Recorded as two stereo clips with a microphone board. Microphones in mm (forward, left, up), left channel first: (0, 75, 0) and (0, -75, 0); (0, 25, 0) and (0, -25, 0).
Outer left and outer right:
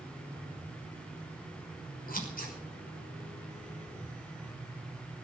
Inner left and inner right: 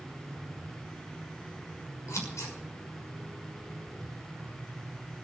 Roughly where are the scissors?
Left.